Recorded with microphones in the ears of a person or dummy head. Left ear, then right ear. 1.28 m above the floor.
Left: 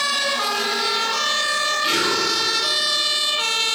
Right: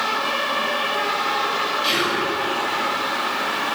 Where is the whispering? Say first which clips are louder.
Left 1 dB; 5° right (ahead or behind), 0.6 m.